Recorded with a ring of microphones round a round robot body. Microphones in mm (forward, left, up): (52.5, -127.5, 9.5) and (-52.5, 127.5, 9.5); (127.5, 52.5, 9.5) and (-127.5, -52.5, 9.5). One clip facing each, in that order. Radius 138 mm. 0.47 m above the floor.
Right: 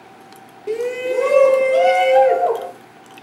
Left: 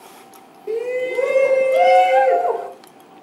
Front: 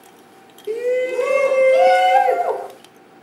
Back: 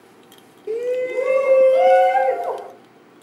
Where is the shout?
60° right, 0.8 m; by 2.7 s 20° left, 1.2 m.